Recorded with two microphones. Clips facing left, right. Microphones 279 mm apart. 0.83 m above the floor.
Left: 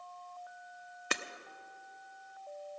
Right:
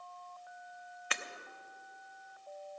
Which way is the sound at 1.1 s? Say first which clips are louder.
Left 6 dB; 50° left (ahead or behind).